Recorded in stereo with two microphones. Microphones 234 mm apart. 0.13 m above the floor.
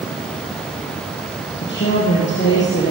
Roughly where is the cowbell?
No cowbell in this recording.